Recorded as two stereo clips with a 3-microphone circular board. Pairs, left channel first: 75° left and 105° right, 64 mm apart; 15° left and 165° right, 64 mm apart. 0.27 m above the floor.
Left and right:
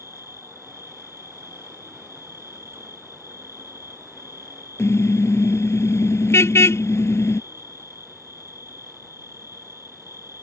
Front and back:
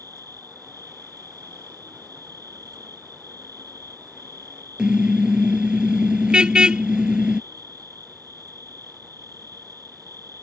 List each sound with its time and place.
0.0 s an insect: 150° right
4.8 s a car horn: 120° left